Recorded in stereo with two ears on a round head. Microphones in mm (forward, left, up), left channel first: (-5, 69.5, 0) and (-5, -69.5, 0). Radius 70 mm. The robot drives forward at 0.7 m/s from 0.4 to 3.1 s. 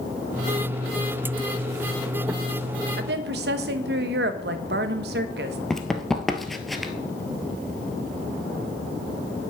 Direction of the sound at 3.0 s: 70° right (ahead or behind).